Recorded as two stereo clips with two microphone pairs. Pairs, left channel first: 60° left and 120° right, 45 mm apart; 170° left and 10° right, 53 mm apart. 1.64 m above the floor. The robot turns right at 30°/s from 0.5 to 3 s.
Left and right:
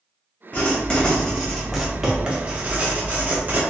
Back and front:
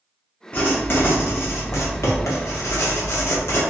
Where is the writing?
115° left, 0.8 m; by 3.6 s 170° right, 0.8 m.